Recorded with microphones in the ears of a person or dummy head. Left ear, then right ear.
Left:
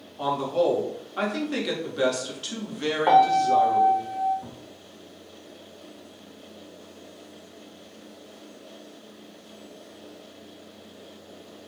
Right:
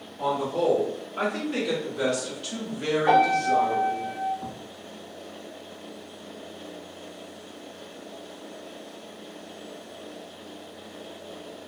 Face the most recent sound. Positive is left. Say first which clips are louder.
# right 6 dB
turn(degrees=-35)  # may be behind; listen again after turning